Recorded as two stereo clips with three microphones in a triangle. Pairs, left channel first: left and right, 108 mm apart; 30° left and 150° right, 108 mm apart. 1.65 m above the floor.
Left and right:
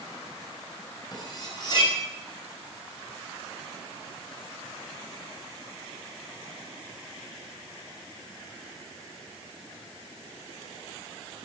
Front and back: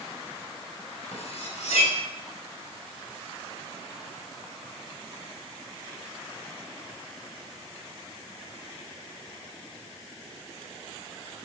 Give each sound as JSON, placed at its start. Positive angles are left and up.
{"t": 1.1, "sound": "cutlery clinking", "azimuth_deg": 40, "distance_m": 5.0}